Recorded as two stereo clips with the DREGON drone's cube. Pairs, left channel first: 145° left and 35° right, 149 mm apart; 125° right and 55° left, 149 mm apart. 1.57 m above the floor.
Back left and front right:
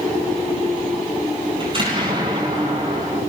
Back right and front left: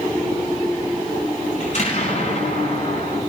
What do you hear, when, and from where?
1.6 s an explosion: 90° right, 8.5 m